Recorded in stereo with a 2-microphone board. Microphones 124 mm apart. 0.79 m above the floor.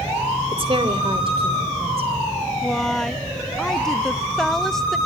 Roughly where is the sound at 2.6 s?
Centre.